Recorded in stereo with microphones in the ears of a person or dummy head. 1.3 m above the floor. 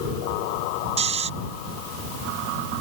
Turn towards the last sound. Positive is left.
turn(degrees=-35)  # may be behind; listen again after turning